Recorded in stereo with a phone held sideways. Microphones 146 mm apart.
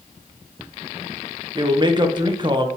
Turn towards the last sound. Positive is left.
turn(degrees=-30)  # may be behind; listen again after turning